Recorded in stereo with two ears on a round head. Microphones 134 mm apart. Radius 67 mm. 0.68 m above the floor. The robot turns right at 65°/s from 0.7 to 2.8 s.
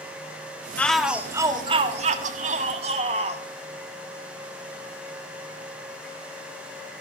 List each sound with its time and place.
0.8 s a shout: 165° left, 1.7 m; by 3.4 s 60° right, 1.7 m